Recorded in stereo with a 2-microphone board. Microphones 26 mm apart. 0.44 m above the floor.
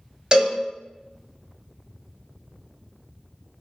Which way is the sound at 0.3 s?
35° right (ahead or behind).